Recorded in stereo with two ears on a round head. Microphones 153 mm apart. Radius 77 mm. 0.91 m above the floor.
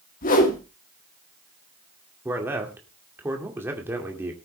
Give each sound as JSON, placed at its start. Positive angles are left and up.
{"t": 0.2, "sound": "a whoosh", "side_deg": 50, "distance_m": 2.5}
{"t": 2.2, "sound": "a man speaking", "side_deg": -15, "distance_m": 2.0}